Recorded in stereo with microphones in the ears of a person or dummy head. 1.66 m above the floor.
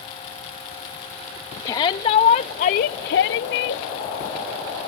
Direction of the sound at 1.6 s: 35° left (ahead or behind).